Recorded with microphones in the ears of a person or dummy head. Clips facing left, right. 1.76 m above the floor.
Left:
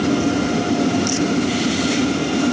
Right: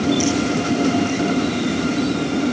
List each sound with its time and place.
Only background noise.